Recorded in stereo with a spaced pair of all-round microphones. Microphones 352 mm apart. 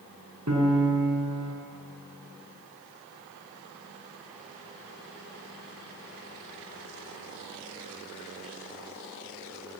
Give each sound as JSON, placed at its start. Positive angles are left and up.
{"t": 0.5, "sound": "a piano", "side_deg": -50, "distance_m": 4.5}